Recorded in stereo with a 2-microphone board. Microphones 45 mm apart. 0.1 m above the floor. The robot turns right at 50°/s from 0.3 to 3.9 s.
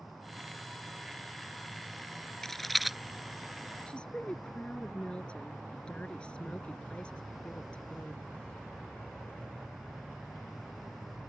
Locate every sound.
2.4 s a rattle: 10° left (ahead or behind); by 3.0 s 5° right (ahead or behind)
3.9 s a woman speaking: 20° left (ahead or behind); by 8.2 s 25° left (ahead or behind)